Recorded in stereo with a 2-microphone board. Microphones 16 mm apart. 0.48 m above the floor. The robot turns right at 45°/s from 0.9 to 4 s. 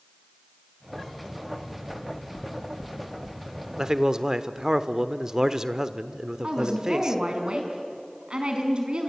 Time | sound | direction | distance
1.9 | knocking | 30° left (ahead or behind) | 0.5 m
3.8 | a man speaking | 45° right (ahead or behind) | 1.1 m
6.4 | a woman speaking | 70° right (ahead or behind) | 4.5 m